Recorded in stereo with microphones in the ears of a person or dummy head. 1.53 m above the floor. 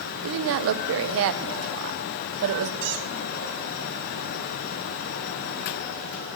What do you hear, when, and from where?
0.2 s a woman speaking: 65° right (ahead or behind), 0.7 m
2.8 s a squeak: 40° right (ahead or behind), 0.6 m